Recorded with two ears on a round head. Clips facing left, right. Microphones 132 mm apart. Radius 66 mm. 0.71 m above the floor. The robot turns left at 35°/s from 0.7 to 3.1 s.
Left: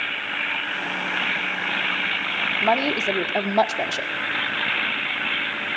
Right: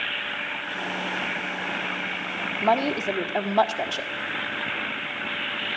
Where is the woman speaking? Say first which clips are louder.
Left 1 dB; 5° right (ahead or behind), 1.5 m; by 4.1 s 10° left (ahead or behind), 1.5 m.